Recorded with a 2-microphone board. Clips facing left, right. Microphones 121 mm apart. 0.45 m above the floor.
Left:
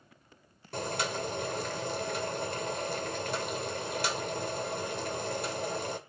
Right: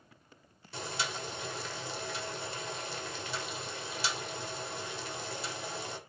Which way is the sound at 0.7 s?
50° left (ahead or behind).